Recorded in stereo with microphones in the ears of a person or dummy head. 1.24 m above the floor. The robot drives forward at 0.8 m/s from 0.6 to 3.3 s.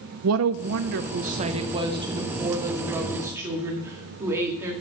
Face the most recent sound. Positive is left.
turn(degrees=-15)  # may be behind; listen again after turning